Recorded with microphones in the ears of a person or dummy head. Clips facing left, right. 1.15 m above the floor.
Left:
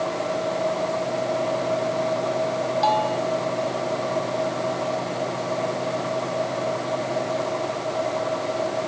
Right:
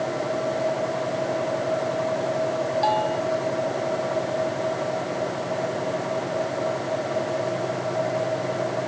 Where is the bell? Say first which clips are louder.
Left 2 dB; 10° right (ahead or behind).